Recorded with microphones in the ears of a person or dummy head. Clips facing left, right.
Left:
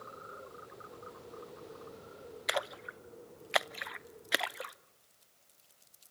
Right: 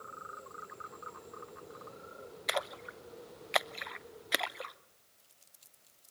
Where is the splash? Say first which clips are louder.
Even; 5° left (ahead or behind), 0.7 m.